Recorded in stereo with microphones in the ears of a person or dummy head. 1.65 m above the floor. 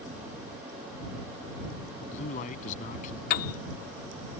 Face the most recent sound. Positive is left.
turn(degrees=50)  # may be behind; listen again after turning